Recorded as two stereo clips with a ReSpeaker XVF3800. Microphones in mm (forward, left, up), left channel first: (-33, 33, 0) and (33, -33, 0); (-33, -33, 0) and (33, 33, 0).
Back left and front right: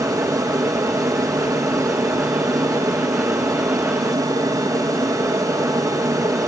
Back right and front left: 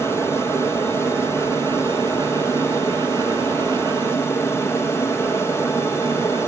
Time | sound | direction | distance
0.0 | an aircraft | 85° right | ?